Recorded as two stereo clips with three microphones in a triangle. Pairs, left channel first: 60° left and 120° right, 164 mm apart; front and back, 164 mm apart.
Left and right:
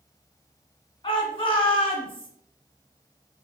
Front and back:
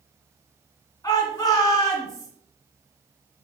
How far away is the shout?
About 1.4 m.